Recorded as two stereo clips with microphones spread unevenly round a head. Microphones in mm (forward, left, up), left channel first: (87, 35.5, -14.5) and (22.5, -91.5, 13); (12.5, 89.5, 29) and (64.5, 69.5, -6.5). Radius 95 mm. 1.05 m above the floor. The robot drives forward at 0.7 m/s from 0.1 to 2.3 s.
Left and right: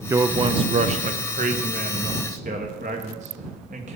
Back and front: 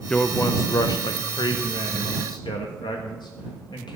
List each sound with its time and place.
0.1 s a man speaking: 40° right, 0.5 m; by 4.0 s 175° right, 1.5 m